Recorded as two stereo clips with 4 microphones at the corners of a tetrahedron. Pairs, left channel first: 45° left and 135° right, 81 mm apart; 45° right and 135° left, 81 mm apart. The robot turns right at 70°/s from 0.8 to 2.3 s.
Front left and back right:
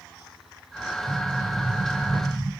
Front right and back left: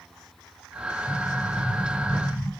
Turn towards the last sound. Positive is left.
turn(degrees=-50)